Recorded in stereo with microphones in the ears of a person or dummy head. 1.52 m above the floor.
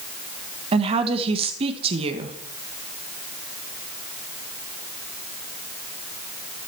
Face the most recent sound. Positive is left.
turn(degrees=-35)  # may be behind; listen again after turning